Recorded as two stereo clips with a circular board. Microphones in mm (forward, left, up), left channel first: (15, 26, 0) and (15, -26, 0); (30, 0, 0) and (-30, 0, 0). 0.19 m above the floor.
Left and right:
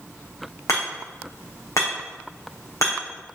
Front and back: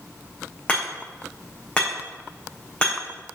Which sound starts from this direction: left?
Hammering, at 0.7 s.